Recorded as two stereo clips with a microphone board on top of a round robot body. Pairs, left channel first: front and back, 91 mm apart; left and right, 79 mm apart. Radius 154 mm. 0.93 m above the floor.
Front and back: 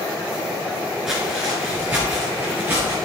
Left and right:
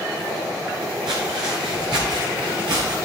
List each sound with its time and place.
1.1 s footsteps: 95° right, 1.0 m; by 3.0 s 115° right, 1.7 m